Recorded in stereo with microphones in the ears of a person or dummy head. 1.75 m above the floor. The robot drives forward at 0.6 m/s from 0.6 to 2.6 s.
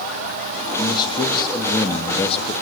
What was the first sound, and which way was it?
A man speaking, 20° left (ahead or behind).